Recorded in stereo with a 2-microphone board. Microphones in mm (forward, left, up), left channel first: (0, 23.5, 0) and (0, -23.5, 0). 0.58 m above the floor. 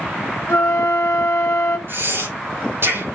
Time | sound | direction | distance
0.5 | a flute | 65° left (ahead or behind) | 1.1 m
1.9 | breathing | 60° right (ahead or behind) | 4 m